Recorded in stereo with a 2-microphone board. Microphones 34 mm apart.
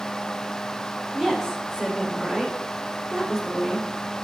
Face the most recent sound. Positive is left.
turn(degrees=-20)  # may be behind; listen again after turning